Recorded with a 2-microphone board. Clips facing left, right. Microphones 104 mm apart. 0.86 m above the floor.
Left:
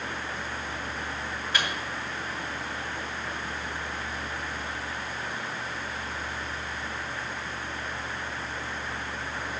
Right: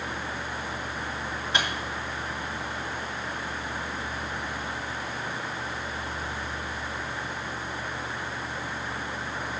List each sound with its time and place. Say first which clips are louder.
1.5 s a microwave: right 2 dB; 25° right (ahead or behind), 1.9 m